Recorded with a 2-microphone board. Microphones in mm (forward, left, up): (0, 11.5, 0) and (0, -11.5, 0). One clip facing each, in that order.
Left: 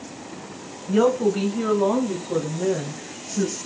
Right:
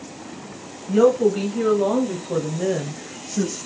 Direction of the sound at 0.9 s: Centre (ahead or behind).